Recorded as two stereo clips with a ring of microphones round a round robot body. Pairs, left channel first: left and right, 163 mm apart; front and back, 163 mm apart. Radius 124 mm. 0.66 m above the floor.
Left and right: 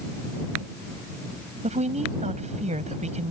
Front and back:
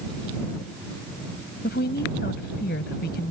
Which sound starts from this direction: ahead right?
A woman speaking, at 1.6 s.